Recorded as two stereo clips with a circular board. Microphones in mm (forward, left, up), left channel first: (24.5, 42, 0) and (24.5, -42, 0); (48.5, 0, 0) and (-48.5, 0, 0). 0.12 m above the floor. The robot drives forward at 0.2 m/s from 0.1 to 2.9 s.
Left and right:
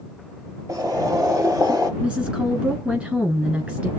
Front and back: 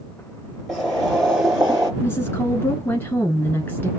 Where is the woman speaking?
25° right, 1.4 m; by 3.9 s 30° right, 1.3 m.